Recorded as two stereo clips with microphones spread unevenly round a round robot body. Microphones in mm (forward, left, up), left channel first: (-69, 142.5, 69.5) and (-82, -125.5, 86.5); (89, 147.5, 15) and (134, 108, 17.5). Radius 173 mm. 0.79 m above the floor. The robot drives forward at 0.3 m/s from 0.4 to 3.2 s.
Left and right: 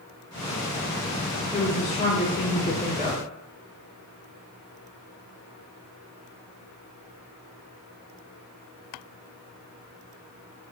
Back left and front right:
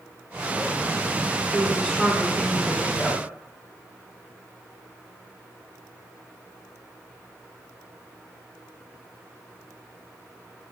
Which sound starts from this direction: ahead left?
A woman speaking, at 1.5 s.